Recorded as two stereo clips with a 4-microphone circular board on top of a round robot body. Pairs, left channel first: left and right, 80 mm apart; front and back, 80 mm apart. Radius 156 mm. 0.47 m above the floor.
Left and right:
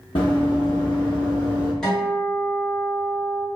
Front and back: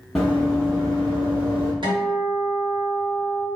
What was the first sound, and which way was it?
Running footsteps, 90° left.